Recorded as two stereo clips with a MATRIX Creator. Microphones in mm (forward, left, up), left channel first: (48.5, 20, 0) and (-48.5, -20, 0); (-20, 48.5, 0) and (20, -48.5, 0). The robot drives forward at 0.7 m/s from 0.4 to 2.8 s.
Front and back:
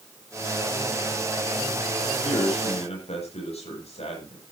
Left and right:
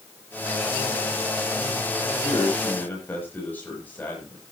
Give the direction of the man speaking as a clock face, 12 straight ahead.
11 o'clock.